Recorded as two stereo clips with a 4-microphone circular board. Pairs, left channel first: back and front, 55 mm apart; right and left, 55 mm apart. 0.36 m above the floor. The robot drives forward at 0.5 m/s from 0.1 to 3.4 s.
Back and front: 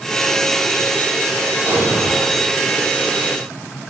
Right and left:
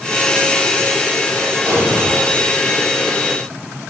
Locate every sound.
1.6 s an explosion: 55° left, 6 m; by 2.5 s 60° left, 5.5 m